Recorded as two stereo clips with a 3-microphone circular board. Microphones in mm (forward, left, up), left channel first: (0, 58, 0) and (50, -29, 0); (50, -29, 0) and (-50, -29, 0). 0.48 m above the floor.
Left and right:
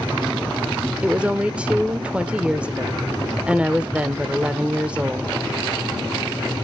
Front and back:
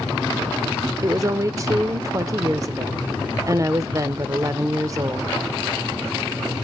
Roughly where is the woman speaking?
Behind right.